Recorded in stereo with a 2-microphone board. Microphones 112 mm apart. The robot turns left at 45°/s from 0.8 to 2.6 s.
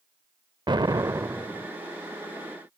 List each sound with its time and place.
0.7 s an explosion: 135° right; by 1.7 s 175° right